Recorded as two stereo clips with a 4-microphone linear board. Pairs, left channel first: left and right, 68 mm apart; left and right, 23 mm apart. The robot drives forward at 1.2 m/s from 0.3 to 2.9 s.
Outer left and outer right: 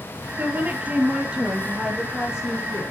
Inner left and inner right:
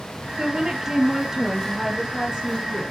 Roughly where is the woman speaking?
Right.